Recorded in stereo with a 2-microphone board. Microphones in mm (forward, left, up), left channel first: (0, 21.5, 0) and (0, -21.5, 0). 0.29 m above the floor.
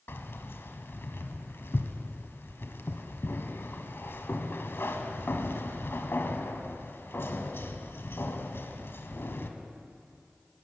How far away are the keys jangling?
About 1.2 m.